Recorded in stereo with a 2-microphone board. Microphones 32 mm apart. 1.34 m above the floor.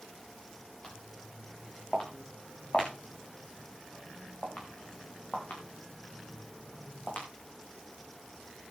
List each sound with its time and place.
0.8 s footsteps: 25° left (ahead or behind), 7 m; by 7.3 s 65° left (ahead or behind), 4.5 m